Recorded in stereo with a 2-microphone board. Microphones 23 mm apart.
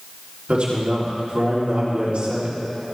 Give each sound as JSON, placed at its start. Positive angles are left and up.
{"t": 0.5, "sound": "a man speaking", "side_deg": -55, "distance_m": 3.5}